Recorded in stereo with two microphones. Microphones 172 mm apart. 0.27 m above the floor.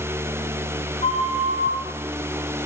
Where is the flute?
35° left (ahead or behind), 1.4 m.